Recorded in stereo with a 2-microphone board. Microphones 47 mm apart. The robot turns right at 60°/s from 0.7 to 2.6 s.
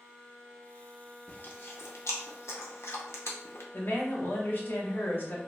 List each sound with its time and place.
1.3 s chewing: 30° left (ahead or behind), 0.5 m; by 3.6 s 70° left (ahead or behind), 0.5 m
3.7 s a woman speaking: 45° left (ahead or behind), 0.8 m